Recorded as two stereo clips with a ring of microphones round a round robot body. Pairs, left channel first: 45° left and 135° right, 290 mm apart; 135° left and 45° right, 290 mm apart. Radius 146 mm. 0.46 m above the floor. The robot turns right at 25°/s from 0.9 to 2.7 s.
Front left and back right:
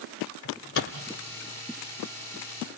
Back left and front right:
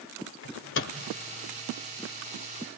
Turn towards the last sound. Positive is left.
turn(degrees=135)